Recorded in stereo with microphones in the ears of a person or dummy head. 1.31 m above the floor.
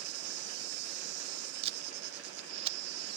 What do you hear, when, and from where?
0.0 s an insect: 65° right (ahead or behind), 1.1 m
1.6 s tape being pulled: 35° right (ahead or behind), 0.8 m